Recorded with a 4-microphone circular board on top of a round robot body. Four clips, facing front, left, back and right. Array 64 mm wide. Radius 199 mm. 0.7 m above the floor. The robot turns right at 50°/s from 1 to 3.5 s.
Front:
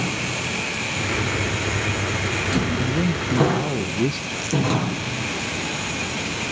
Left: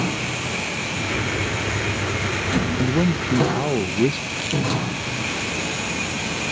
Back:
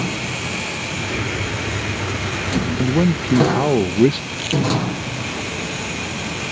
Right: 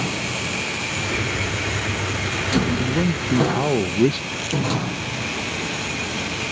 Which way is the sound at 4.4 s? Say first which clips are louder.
Left 1 dB, back 2 dB; straight behind.